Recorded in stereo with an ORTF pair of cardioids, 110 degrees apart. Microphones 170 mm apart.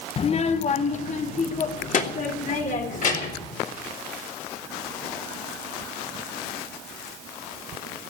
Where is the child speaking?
35° left, 0.6 m; by 3.5 s 50° left, 4 m.